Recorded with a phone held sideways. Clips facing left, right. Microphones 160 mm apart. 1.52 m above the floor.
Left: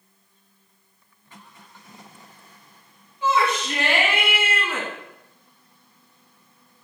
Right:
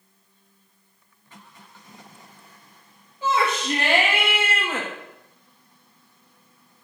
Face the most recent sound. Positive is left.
turn(degrees=-35)  # may be behind; listen again after turning